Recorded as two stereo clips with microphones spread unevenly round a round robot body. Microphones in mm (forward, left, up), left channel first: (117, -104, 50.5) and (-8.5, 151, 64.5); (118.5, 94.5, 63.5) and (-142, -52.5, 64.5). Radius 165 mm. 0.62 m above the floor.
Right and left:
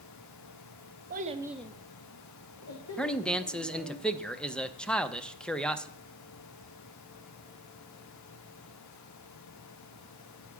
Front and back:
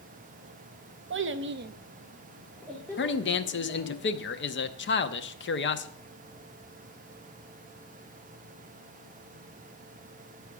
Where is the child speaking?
170° left, 0.9 m; by 4.0 s 45° right, 2.5 m.